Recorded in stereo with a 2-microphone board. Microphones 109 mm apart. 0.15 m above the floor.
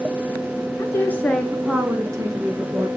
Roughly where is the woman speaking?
Left.